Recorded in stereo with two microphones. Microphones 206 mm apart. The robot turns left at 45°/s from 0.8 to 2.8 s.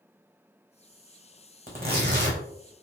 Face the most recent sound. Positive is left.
turn(degrees=-90)